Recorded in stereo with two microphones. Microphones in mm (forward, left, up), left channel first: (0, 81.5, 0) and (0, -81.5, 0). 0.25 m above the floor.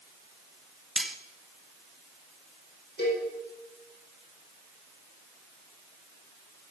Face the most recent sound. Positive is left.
turn(degrees=80)